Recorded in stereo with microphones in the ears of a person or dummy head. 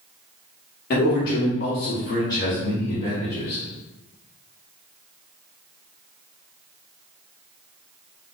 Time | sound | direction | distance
0.9 | a man speaking | 70° left (ahead or behind) | 0.9 m